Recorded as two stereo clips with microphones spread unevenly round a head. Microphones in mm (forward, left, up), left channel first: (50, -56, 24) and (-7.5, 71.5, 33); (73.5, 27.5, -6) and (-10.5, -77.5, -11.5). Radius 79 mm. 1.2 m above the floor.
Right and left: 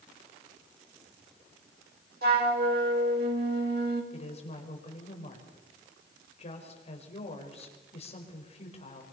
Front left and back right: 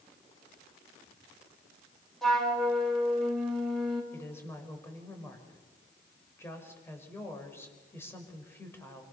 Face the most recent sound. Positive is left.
turn(degrees=-20)